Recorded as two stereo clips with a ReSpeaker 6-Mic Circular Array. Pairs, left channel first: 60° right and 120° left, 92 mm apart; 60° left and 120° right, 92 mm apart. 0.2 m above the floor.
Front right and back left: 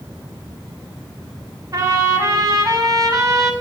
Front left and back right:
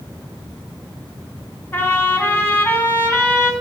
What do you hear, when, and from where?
1.7 s a trumpet: 115° left, 1.0 m